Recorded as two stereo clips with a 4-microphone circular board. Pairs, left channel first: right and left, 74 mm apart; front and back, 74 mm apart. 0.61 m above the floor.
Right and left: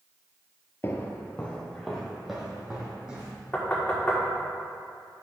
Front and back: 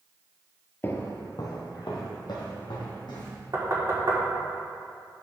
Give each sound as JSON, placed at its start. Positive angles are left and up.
{"t": 0.8, "sound": "footsteps", "azimuth_deg": -50, "distance_m": 0.8}
{"t": 3.5, "sound": "knocking", "azimuth_deg": -160, "distance_m": 1.3}